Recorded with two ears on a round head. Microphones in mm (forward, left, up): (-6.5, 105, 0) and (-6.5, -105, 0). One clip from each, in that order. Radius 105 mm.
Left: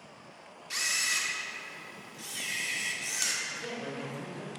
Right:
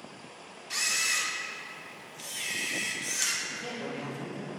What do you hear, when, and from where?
0.7 s a camera shutter: 5° left (ahead or behind), 0.9 m
3.5 s a man speaking: 10° left (ahead or behind), 2.5 m